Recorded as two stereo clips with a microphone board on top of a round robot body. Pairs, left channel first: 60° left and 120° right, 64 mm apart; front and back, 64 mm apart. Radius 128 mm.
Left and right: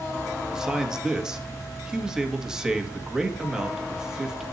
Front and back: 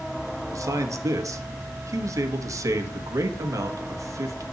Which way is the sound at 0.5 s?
160° left.